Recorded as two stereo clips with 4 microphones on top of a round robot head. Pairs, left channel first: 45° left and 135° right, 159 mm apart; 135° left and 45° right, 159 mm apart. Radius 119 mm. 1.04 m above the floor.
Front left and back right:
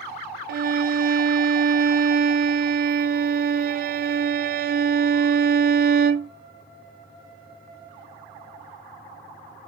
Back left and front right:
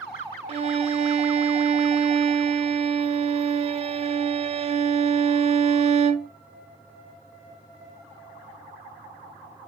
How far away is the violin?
About 0.6 m.